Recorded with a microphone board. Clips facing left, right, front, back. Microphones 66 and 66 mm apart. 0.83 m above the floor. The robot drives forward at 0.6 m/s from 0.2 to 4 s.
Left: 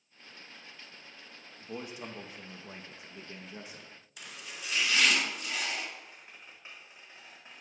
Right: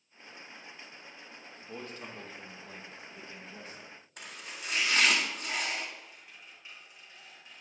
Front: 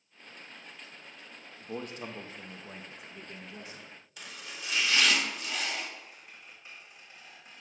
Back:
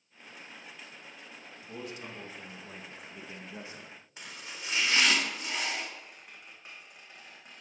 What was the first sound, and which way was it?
A man speaking, 15° left.